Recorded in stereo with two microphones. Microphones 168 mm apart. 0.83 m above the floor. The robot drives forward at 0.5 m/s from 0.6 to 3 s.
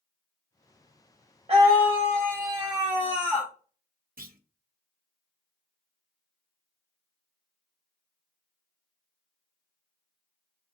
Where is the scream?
35° right (ahead or behind), 0.6 m; by 3.5 s 20° right (ahead or behind), 1.2 m.